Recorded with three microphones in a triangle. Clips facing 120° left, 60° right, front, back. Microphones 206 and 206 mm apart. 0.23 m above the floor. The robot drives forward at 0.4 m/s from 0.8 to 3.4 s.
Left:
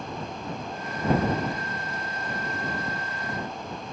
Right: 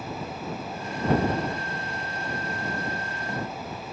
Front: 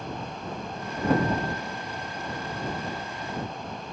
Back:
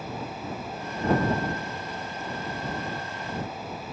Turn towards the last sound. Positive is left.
No sound to turn to.